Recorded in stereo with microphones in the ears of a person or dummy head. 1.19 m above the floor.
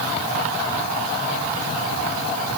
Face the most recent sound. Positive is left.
No sound to turn to.